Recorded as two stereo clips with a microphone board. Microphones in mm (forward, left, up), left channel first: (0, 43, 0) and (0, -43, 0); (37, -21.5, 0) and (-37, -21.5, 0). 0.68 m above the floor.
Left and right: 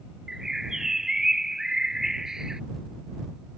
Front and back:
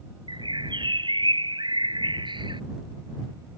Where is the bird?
175° right.